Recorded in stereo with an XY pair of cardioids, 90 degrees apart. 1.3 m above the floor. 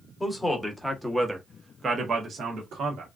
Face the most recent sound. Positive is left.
turn(degrees=-75)